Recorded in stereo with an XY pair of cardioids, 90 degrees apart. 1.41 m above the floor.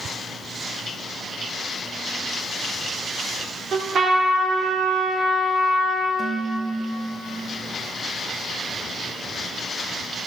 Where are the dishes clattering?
45° right, 2.5 m.